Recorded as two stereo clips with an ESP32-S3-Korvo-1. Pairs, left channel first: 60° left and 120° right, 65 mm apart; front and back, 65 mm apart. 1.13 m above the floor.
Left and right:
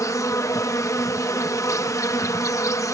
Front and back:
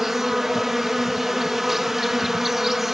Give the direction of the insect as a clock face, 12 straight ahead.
9 o'clock.